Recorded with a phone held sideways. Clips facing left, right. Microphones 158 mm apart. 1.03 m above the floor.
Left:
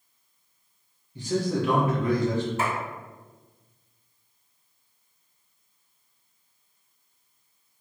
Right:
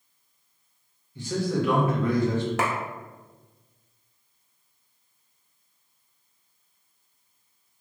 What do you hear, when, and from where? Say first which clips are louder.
1.1 s a man speaking: left 1 dB; 35° left (ahead or behind), 1.4 m
2.6 s a clap: right 3 dB; 90° right, 0.6 m